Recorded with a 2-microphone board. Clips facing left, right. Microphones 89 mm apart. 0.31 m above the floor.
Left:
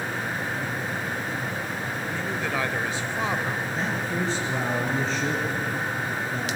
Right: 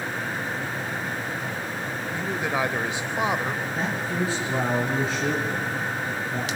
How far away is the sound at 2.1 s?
About 0.9 m.